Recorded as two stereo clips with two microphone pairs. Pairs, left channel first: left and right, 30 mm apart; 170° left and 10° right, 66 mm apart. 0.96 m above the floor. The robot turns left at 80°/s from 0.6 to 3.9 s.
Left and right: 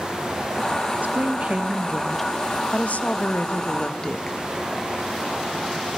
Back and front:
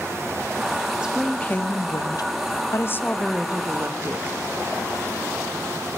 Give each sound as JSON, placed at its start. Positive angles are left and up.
{"t": 1.0, "sound": "a woman speaking", "azimuth_deg": -90, "distance_m": 0.7}